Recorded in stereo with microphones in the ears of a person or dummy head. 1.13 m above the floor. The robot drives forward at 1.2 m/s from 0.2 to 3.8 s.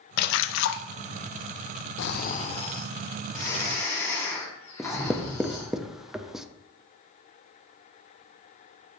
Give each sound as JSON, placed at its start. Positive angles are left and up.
{"t": 0.2, "sound": "a splash", "side_deg": 60, "distance_m": 0.6}
{"t": 2.0, "sound": "snoring", "side_deg": 65, "distance_m": 0.6}
{"t": 4.8, "sound": "writing", "side_deg": 0, "distance_m": 0.7}